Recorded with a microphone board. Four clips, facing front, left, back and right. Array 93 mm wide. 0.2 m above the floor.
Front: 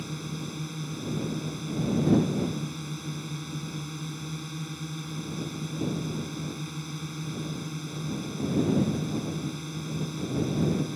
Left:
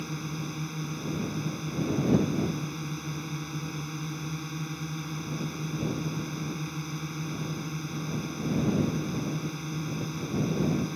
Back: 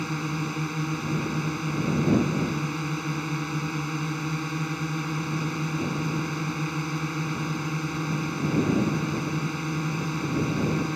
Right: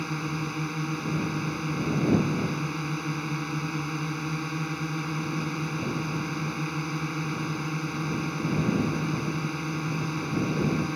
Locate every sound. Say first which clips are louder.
0.0 s a drone: right 4 dB, back 7 dB; 140° right